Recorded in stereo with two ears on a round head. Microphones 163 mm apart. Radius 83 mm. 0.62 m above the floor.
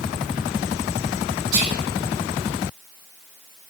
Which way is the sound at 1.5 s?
60° right (ahead or behind).